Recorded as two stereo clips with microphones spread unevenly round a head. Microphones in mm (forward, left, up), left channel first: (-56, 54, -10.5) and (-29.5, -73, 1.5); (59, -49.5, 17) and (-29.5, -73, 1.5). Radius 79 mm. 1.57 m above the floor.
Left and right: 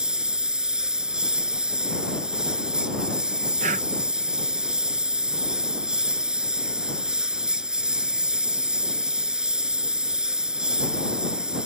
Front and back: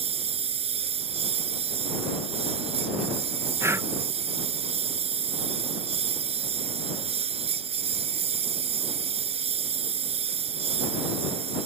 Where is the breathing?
100° right.